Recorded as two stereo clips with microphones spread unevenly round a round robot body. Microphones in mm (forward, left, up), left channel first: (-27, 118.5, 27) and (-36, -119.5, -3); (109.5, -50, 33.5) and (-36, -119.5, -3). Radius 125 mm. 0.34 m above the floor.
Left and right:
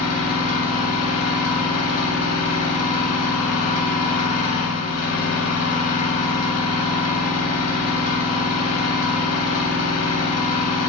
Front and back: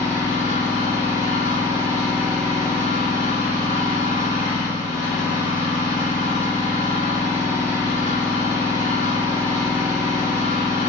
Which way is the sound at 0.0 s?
110° left.